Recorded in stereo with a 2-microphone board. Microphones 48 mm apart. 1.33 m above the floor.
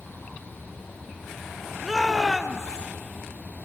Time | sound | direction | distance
1.8 | a shout | 5° left (ahead or behind) | 2.5 m